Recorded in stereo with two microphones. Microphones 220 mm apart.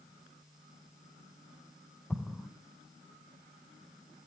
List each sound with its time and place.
2.1 s an explosion: 5° left (ahead or behind), 1.4 m